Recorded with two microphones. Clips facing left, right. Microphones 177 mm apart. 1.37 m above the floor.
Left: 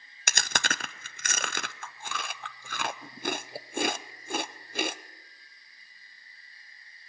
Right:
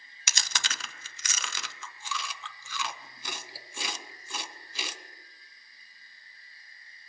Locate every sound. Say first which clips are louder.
0.3 s chewing: left 6 dB; 55° left (ahead or behind), 0.5 m